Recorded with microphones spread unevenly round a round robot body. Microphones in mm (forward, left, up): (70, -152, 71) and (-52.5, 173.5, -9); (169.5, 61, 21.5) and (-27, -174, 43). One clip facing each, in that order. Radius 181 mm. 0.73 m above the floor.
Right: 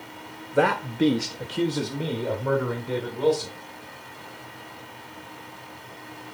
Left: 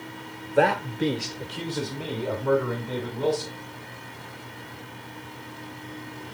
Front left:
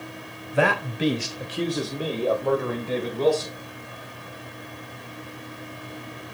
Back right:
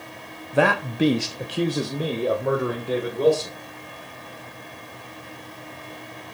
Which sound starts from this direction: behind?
A man speaking, at 0.5 s.